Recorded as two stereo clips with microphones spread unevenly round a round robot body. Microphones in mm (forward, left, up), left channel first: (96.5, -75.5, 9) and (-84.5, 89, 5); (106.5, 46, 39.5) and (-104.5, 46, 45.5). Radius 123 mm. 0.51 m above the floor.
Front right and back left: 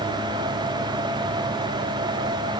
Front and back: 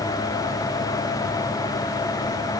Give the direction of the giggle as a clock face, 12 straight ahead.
No giggle in this recording.